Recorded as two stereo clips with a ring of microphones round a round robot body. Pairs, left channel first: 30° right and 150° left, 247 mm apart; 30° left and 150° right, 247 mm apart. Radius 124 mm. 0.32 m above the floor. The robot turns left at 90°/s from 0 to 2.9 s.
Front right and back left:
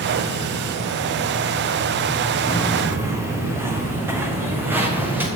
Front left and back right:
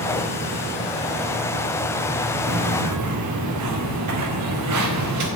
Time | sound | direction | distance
2.5 | footsteps | 95° right | 1.7 m